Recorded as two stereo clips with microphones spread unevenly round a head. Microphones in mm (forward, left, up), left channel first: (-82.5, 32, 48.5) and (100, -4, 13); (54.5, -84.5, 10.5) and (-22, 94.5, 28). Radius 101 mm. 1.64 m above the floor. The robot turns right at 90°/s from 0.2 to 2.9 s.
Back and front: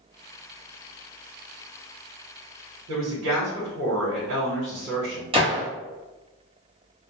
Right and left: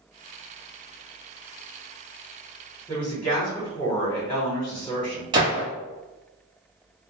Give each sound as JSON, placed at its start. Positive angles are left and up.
{"t": 2.9, "sound": "a woman speaking", "azimuth_deg": 5, "distance_m": 1.2}
{"t": 5.3, "sound": "a gunshot", "azimuth_deg": 55, "distance_m": 0.9}